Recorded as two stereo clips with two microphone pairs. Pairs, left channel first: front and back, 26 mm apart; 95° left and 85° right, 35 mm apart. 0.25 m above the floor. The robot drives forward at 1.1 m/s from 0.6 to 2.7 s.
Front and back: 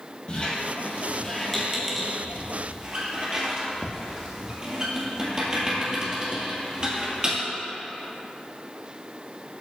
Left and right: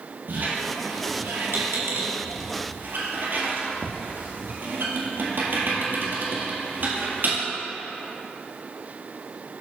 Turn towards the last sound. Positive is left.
turn(degrees=-120)